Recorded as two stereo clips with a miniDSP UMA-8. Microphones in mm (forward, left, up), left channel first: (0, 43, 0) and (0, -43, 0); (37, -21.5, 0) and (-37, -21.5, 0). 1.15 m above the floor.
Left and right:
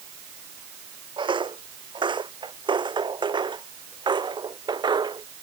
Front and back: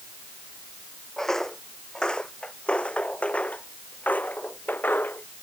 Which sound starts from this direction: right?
Footsteps, at 1.2 s.